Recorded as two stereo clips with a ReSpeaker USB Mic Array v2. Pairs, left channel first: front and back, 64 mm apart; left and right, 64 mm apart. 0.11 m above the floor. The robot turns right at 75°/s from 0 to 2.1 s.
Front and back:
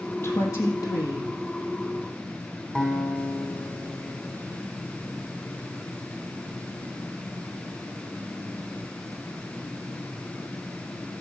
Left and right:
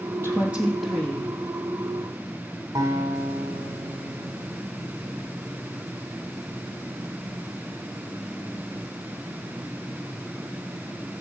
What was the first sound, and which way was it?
A woman speaking, 45° right.